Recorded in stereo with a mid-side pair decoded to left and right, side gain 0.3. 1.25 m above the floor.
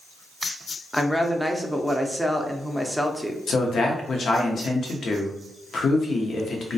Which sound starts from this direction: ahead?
A woman speaking, at 0.9 s.